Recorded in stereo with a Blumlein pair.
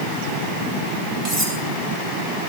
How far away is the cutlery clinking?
About 6 m.